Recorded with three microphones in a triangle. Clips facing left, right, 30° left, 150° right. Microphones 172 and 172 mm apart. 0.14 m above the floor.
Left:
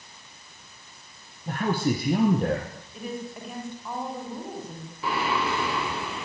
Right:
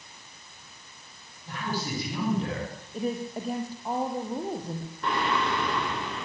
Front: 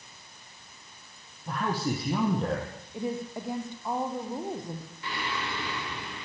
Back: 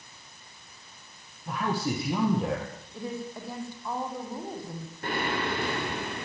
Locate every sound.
1.5 s a man speaking: 120° left, 6 m
2.9 s a woman speaking: 40° right, 5.5 m
5.0 s singing: 175° left, 4.5 m